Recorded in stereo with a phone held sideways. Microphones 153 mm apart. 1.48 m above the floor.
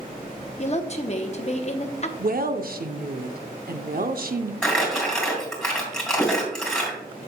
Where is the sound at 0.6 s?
45° left (ahead or behind), 0.8 m.